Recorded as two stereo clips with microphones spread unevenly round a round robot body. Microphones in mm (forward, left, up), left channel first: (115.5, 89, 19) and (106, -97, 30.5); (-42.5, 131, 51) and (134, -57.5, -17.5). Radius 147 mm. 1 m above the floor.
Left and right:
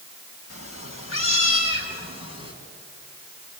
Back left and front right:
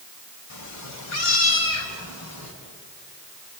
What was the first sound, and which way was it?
A cat meowing, 120° left.